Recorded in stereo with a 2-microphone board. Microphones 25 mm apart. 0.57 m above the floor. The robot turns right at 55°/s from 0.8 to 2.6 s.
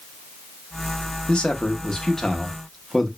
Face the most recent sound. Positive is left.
turn(degrees=175)